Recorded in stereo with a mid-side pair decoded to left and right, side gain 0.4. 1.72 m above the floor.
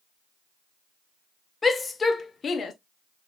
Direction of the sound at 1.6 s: 25° left.